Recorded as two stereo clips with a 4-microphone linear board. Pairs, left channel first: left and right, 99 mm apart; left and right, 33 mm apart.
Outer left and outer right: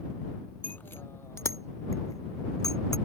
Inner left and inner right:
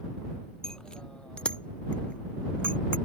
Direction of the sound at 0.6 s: 15° left (ahead or behind).